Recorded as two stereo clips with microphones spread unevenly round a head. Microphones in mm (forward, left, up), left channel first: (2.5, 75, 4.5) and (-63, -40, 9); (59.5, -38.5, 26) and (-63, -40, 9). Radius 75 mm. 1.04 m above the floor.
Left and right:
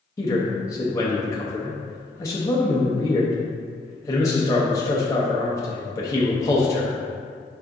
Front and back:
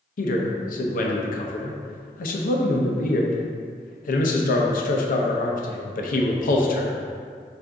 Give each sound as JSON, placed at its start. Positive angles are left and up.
{"t": 0.2, "sound": "a man speaking", "azimuth_deg": -10, "distance_m": 0.6}